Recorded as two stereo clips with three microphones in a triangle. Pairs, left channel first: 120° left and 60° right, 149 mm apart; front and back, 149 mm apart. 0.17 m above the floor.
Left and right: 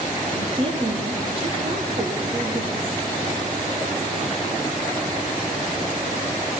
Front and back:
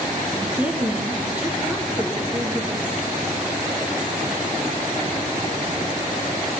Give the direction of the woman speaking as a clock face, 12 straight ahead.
3 o'clock.